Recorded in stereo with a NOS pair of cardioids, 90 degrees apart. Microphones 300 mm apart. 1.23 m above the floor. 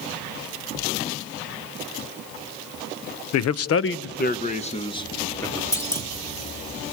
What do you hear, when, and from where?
3.3 s a man speaking: 65° left, 0.8 m; by 5.6 s 10° left, 1.7 m
5.7 s a clunk: 10° left, 1.9 m